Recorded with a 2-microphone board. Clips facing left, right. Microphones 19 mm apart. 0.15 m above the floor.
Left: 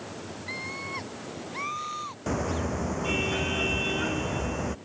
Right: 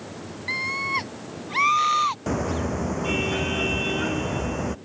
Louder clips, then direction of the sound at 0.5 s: Right 10 dB; 35° right (ahead or behind).